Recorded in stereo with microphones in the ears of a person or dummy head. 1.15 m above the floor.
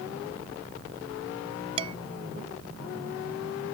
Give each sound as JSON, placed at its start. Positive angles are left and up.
{"t": 1.8, "sound": "dishes clattering", "side_deg": -40}